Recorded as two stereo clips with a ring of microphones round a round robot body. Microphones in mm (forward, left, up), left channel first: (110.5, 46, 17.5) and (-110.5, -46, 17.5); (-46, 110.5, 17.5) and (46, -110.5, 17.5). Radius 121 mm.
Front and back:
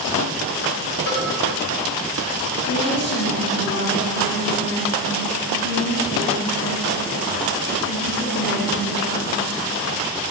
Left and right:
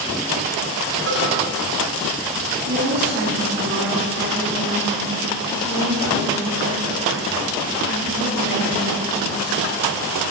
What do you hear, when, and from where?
1.1 s a cowbell: 25° right, 5 m
2.7 s a woman speaking: 20° right, 8 m